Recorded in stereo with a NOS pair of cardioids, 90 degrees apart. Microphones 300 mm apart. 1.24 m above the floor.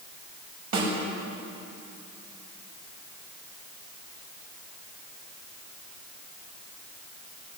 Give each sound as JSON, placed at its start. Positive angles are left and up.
{"t": 0.7, "sound": "a snare drum", "azimuth_deg": -60, "distance_m": 7.0}